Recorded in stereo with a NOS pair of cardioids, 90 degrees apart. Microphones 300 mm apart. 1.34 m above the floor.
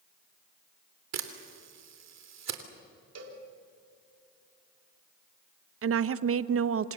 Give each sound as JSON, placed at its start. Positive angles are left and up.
{"t": 1.1, "sound": "a camera shutter", "azimuth_deg": -60, "distance_m": 3.0}
{"t": 3.1, "sound": "a cowbell", "azimuth_deg": -55, "distance_m": 3.5}
{"t": 5.8, "sound": "a woman speaking", "azimuth_deg": -50, "distance_m": 1.0}